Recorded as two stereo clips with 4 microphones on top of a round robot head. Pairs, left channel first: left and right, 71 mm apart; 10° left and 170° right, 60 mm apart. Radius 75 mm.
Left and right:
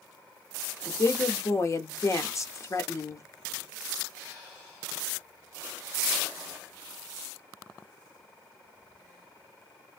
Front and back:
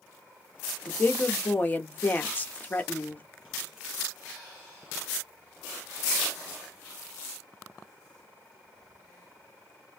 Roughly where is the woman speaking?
Ahead left.